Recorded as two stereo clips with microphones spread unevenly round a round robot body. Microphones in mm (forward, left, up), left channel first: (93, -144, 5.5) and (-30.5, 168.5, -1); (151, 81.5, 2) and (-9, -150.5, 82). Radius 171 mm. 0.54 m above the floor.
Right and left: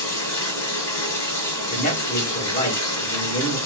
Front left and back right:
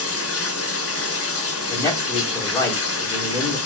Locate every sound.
0.0 s running water: 10° left, 1.0 m
1.7 s a man speaking: 5° right, 1.1 m